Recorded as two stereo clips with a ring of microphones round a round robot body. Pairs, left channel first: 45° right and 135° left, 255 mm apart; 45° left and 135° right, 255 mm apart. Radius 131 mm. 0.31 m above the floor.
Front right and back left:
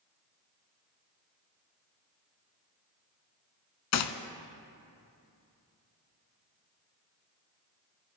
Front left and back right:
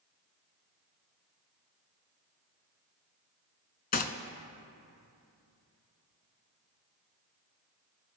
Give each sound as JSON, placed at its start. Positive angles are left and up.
{"t": 3.9, "sound": "a gunshot", "azimuth_deg": -15, "distance_m": 0.6}